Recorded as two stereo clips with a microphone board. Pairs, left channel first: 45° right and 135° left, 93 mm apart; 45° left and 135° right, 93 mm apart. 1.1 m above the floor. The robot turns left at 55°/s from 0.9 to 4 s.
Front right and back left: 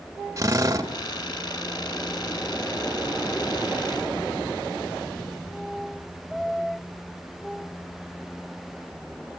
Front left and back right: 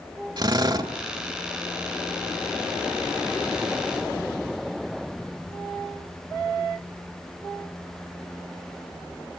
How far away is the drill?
About 1.9 m.